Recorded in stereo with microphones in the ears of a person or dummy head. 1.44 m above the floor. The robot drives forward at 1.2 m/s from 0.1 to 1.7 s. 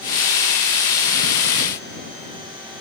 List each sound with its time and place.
Only background noise.